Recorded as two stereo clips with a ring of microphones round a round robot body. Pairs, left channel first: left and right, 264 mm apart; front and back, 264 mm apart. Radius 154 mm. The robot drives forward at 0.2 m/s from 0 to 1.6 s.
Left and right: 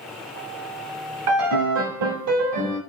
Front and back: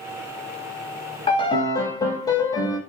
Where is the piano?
70° right, 0.7 m; by 2.8 s 75° right, 0.7 m.